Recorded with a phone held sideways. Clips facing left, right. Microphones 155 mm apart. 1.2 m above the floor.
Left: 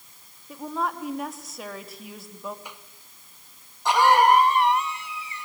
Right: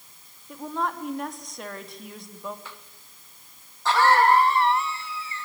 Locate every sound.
0.5 s a woman speaking: 5° left (ahead or behind), 3 m
2.6 s a cough: 15° left (ahead or behind), 1.6 m